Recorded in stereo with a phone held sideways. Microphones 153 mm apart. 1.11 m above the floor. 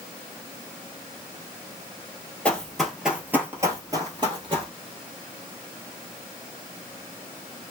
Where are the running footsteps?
10° left (ahead or behind), 1.1 m; by 4.7 s 35° right (ahead or behind), 1.4 m.